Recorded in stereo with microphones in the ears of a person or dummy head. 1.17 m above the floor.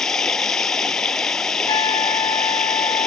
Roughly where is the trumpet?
Left.